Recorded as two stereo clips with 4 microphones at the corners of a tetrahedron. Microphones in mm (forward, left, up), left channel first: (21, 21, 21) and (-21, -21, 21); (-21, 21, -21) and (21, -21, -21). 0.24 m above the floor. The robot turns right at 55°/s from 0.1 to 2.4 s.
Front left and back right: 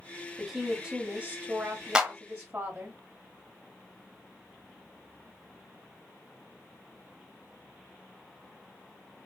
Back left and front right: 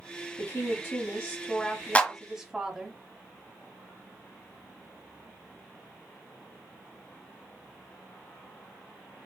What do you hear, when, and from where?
0.4 s a woman speaking: 135° left, 1.1 m; by 3.0 s 115° right, 1.1 m
1.9 s a clap: 165° left, 1.0 m; by 2.1 s 175° left, 1.0 m